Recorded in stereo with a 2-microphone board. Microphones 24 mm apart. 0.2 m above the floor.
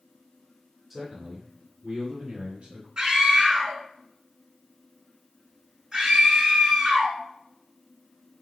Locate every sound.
0.9 s a man speaking: 10° right (ahead or behind), 1.4 m; by 2.9 s 60° right (ahead or behind), 3 m
3.0 s a scream: 30° right (ahead or behind), 1.8 m